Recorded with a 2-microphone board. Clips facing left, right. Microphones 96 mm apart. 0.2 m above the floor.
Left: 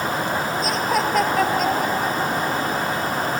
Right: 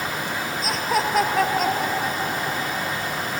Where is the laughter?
Centre (ahead or behind).